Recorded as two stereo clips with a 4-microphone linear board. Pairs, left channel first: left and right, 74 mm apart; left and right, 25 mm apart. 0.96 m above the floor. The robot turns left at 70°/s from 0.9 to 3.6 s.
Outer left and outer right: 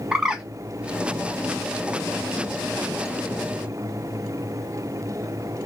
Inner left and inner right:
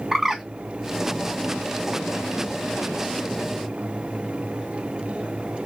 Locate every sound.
0.1 s a bird: 10° right (ahead or behind), 0.5 m